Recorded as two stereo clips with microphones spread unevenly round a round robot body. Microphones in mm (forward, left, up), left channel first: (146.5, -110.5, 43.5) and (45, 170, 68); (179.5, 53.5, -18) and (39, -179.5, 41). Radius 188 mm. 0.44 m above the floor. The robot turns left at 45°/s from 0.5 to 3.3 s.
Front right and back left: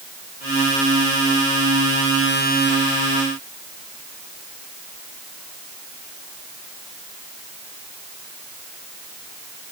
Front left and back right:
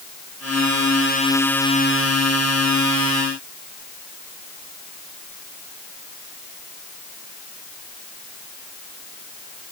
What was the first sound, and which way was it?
Only background noise.